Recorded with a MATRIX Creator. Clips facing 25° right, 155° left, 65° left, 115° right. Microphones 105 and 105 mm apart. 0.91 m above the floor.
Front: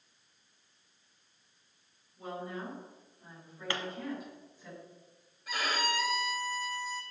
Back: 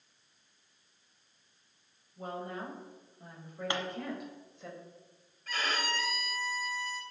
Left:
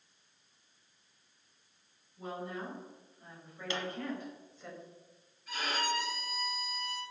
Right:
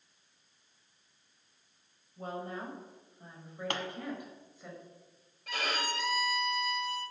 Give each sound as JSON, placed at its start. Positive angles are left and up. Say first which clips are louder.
{"t": 2.2, "sound": "a woman speaking", "louder": "back 1 dB, right 1 dB", "azimuth_deg": -155, "distance_m": 5.0}
{"t": 3.7, "sound": "a pop", "louder": "back 2 dB, even", "azimuth_deg": -135, "distance_m": 1.5}
{"t": 5.5, "sound": "a violin", "louder": "front 2 dB, even", "azimuth_deg": -100, "distance_m": 2.5}